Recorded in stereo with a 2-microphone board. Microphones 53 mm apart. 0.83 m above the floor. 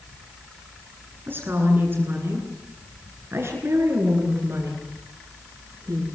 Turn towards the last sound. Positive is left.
turn(degrees=-65)  # may be behind; listen again after turning